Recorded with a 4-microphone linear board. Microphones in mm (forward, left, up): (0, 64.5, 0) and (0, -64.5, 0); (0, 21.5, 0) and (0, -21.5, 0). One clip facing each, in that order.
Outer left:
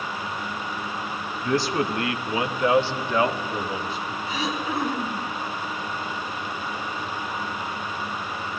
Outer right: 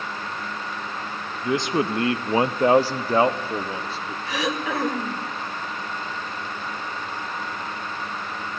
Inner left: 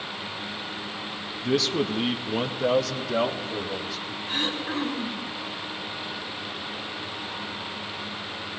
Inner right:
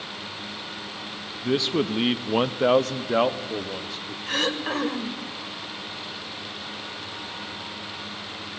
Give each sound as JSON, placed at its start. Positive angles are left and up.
{"t": 1.4, "sound": "a man speaking", "side_deg": -15, "distance_m": 0.9}
{"t": 4.3, "sound": "throat clearing", "side_deg": -80, "distance_m": 1.9}